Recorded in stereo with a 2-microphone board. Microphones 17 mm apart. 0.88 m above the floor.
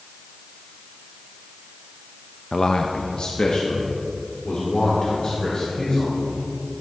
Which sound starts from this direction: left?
A man speaking, at 2.5 s.